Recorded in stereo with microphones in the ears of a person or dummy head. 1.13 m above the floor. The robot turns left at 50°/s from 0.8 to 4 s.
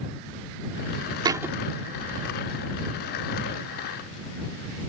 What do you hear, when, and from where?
1.2 s a thud: 15° right (ahead or behind); by 1.6 s centre (ahead or behind)